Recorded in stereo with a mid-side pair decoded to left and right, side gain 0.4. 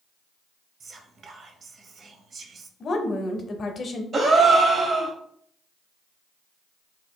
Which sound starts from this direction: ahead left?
A woman speaking, at 2.8 s.